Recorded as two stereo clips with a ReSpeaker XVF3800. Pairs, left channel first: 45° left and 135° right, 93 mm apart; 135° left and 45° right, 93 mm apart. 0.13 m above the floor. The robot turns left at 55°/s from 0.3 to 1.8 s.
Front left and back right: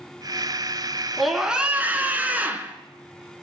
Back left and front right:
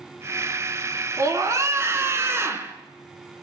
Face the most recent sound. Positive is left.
turn(degrees=-75)